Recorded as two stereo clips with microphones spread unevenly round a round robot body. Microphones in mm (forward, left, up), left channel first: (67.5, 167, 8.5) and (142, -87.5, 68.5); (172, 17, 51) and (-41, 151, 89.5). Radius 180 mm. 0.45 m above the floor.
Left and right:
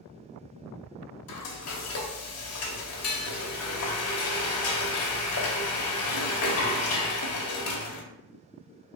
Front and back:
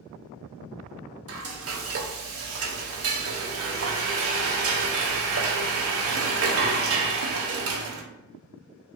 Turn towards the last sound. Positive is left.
turn(degrees=115)